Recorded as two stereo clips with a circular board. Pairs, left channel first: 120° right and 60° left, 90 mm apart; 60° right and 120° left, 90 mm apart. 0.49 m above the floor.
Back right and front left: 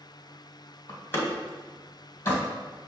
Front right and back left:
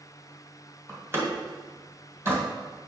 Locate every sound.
0.9 s a door slam: straight behind, 1.9 m